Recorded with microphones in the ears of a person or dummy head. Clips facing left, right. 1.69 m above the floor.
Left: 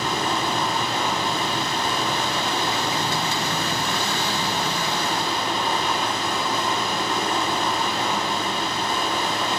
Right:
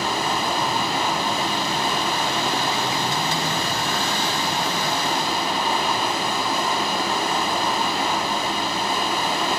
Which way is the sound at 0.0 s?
5° right (ahead or behind).